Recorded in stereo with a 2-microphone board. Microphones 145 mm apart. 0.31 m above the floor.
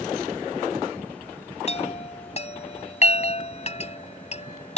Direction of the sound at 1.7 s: 45° left (ahead or behind).